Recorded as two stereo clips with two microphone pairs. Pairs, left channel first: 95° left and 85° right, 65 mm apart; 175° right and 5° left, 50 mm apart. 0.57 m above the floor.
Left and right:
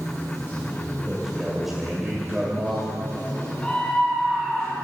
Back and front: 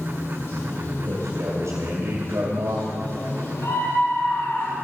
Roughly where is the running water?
Behind left.